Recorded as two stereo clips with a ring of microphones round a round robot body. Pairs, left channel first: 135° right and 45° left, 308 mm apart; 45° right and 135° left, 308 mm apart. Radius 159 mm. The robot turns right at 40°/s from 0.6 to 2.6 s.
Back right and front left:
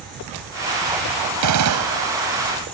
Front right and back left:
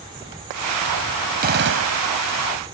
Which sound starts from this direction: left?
A gunshot, at 1.4 s.